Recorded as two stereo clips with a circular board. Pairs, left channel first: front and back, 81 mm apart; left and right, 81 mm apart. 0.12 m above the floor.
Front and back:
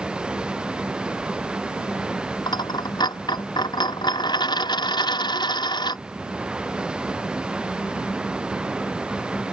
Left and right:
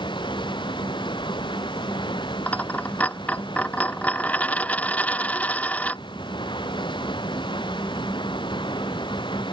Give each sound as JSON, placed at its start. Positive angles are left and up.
{"t": 0.0, "sound": "running water", "azimuth_deg": 100}
{"t": 2.5, "sound": "a dropped coin", "azimuth_deg": 20}